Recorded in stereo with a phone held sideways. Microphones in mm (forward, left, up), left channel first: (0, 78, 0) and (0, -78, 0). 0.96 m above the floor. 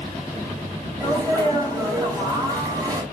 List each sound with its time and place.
1.0 s a sneeze: 25° right (ahead or behind), 4.5 m